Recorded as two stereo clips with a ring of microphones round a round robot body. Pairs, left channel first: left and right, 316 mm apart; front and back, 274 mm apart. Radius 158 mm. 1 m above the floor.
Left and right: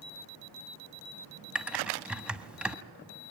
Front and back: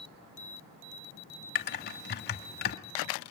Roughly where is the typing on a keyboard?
Ahead.